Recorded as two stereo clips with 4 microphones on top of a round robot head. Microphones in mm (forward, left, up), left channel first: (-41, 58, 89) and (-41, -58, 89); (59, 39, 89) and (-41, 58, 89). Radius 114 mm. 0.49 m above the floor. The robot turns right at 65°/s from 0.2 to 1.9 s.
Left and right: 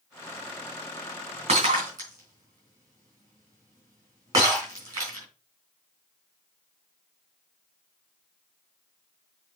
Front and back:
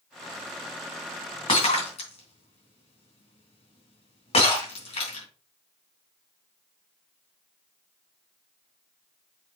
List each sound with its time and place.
1.5 s breaking glass: 55° right, 3.5 m; by 5.3 s 25° right, 3.5 m